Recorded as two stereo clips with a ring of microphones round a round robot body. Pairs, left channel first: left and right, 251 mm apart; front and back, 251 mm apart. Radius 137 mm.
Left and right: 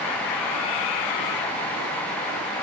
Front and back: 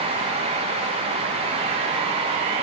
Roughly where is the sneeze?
I don't hear a sneeze.